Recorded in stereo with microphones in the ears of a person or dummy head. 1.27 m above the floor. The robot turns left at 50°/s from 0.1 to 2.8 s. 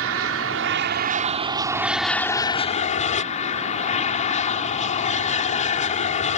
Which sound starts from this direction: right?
An aircraft, at 0.0 s.